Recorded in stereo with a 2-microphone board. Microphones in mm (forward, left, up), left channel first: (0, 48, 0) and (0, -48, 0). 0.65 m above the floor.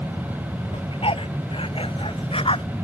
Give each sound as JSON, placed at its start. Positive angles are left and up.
{"t": 0.7, "sound": "a dog barking", "side_deg": 70}